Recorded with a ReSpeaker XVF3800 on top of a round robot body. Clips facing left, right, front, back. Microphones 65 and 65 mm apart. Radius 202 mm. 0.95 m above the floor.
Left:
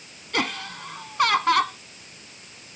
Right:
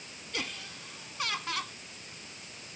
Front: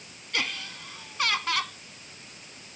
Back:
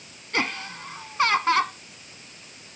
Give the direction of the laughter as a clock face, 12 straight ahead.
8 o'clock.